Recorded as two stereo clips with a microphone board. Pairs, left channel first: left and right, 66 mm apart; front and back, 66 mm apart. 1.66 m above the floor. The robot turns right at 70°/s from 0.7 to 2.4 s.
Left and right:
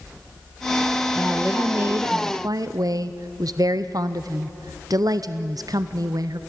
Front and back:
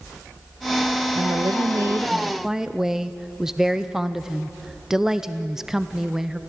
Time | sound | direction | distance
1.1 | a woman speaking | 175° left | 0.7 m